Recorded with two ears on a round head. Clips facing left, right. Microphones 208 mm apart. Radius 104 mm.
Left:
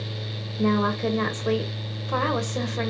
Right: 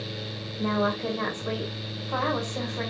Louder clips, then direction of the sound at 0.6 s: Left 4 dB; 45° left (ahead or behind).